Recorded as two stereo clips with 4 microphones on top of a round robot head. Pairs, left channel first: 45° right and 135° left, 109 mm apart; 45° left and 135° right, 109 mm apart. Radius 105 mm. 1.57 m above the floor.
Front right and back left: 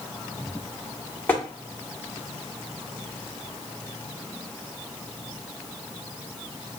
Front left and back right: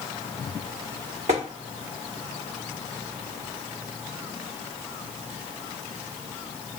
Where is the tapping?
115° right, 1.1 m.